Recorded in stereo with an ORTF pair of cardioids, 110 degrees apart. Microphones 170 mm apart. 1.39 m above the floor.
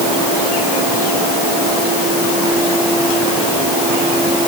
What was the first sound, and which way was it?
Only background noise.